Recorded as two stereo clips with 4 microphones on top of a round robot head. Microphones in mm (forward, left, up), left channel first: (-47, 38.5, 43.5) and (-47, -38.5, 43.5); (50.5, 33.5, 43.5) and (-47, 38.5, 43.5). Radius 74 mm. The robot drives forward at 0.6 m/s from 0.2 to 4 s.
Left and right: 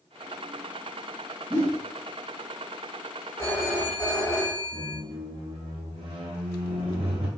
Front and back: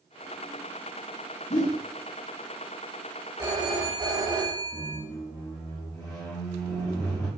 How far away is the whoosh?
About 0.8 m.